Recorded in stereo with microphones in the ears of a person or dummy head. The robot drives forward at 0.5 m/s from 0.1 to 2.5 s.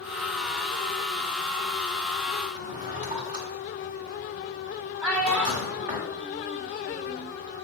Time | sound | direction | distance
2.5 | a drawer | 25° right (ahead or behind) | 1.8 m
5.0 | a child speaking | 15° right (ahead or behind) | 1.6 m